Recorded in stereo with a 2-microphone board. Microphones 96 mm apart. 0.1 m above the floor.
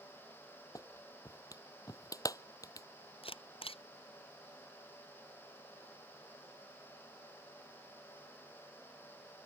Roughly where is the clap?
Left.